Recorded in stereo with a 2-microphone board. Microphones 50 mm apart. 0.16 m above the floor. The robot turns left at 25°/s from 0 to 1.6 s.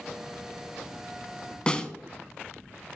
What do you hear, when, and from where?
1.7 s a snare drum: 20° left (ahead or behind), 0.5 m